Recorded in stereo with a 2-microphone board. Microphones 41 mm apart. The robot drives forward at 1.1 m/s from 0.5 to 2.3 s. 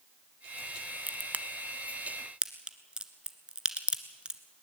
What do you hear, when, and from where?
1.1 s a crack: 40° right (ahead or behind), 0.7 m; by 4.4 s 20° right (ahead or behind), 1.3 m